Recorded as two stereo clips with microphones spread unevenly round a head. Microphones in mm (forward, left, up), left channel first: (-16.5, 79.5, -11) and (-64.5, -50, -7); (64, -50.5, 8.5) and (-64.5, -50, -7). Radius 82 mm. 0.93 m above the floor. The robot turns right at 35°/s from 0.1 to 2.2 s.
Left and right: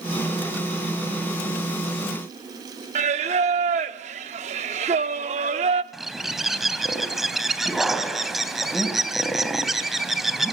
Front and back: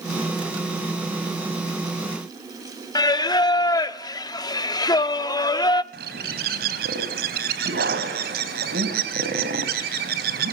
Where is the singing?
60° right, 0.9 m.